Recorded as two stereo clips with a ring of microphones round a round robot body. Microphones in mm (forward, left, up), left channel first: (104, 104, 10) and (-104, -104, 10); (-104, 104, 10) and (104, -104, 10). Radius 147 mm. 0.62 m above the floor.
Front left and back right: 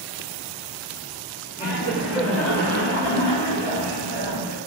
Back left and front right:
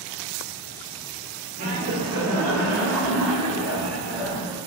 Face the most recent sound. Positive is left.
turn(degrees=50)